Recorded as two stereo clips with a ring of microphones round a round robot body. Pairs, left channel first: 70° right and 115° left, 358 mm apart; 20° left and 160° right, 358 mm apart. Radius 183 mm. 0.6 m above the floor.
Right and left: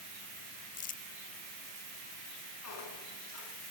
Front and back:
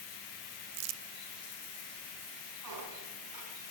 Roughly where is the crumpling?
Behind right.